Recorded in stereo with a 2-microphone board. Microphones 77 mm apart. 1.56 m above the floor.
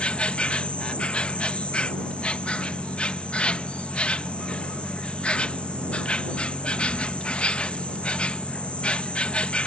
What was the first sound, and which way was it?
An insect, 15° left (ahead or behind).